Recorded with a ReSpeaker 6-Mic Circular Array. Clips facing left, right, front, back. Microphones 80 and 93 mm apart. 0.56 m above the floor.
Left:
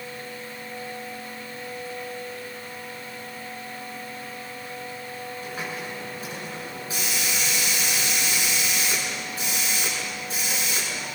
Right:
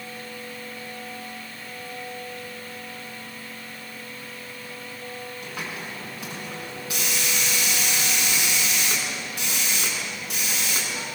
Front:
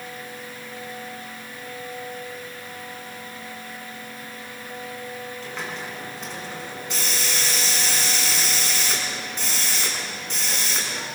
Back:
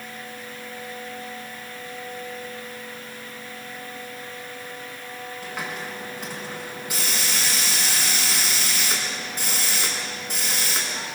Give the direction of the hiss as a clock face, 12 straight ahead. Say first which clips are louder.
Left 2 dB, back 3 dB; 3 o'clock.